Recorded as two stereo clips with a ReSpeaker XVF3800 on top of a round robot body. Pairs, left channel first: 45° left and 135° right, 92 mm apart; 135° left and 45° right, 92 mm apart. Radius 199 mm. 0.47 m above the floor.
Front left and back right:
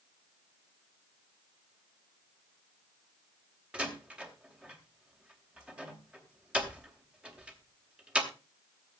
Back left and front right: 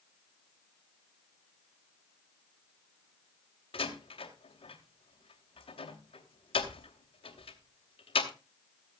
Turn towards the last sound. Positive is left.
turn(degrees=145)